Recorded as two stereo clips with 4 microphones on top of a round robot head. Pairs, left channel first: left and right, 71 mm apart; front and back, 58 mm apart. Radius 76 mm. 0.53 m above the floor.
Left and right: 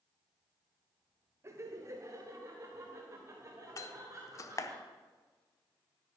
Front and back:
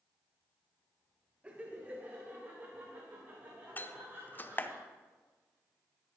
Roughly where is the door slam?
Ahead left.